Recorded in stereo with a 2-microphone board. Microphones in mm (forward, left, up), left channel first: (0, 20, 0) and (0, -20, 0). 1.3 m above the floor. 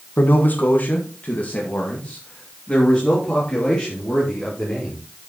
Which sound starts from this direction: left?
A man speaking, at 0.2 s.